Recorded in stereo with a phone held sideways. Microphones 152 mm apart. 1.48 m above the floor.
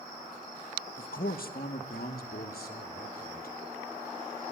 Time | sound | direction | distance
1.0 | a man speaking | 65° left (ahead or behind) | 1.3 m